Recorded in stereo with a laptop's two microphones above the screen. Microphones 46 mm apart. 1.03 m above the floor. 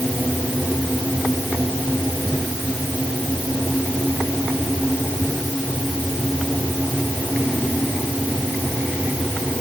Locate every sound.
Only background noise.